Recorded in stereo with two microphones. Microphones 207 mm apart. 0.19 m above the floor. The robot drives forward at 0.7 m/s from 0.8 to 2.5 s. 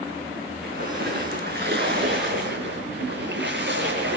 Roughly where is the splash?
Right.